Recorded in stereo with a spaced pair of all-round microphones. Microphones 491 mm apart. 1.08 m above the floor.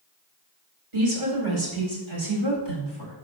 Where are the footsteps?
I don't hear footsteps.